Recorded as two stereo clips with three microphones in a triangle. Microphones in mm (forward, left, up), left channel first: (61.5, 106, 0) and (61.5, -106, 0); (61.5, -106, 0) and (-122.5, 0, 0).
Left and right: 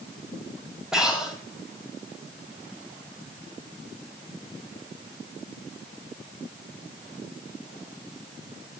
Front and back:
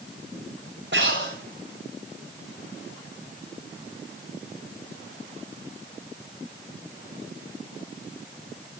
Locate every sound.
0.9 s breathing: 175° right, 7 m